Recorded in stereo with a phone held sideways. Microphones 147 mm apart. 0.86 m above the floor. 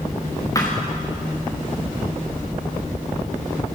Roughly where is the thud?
Left.